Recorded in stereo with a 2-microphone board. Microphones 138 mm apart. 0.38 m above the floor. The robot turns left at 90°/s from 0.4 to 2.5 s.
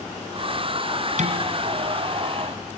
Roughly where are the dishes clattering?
Right.